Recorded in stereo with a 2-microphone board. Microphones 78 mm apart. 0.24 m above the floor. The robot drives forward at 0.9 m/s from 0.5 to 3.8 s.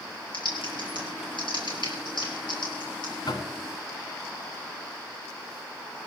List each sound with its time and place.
0.3 s typing on a keyboard: 75° left (ahead or behind), 5.5 m; by 3.1 s 60° left (ahead or behind), 6 m
3.3 s knocking: 60° left (ahead or behind), 1.7 m